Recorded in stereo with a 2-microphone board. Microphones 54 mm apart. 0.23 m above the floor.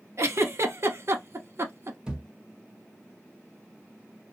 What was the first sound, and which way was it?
A giggle, 55° right (ahead or behind).